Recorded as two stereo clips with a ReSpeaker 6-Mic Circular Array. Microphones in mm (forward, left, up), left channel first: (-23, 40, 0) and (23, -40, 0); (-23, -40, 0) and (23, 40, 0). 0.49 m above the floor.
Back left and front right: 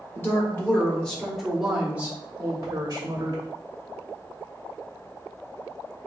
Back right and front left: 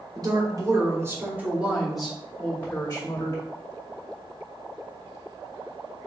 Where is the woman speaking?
70° left, 1.3 m; by 3.4 s 80° right, 1.3 m.